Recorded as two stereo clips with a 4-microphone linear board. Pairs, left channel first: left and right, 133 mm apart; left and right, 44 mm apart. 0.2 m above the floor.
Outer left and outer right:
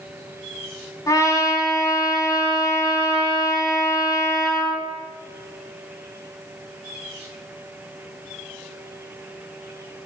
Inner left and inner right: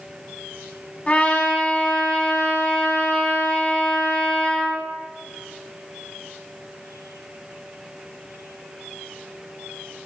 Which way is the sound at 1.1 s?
25° left (ahead or behind).